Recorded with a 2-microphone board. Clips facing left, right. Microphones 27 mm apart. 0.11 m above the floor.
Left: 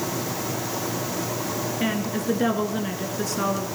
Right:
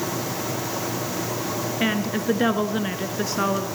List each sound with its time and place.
1.8 s a woman speaking: 25° right (ahead or behind), 1.5 m